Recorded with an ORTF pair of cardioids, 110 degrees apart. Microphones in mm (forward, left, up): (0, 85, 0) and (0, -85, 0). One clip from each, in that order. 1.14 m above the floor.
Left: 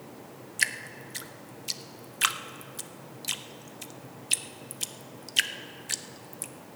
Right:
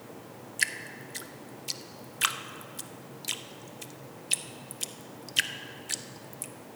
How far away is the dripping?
About 0.6 m.